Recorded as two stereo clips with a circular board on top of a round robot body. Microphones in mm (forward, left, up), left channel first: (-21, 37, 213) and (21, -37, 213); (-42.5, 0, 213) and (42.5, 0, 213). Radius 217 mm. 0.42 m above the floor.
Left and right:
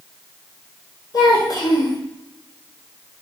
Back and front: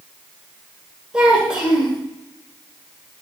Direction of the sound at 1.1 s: 80° left.